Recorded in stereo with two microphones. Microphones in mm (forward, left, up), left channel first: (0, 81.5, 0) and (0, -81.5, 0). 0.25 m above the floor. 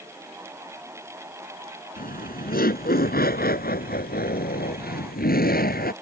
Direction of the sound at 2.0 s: 65° left (ahead or behind).